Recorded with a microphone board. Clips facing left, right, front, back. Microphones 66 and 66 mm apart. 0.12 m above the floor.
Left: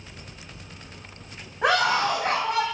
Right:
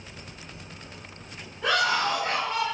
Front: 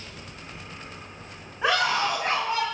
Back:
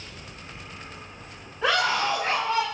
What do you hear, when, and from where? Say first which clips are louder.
1.6 s a scream: left 3 dB, even; 75° left, 9 m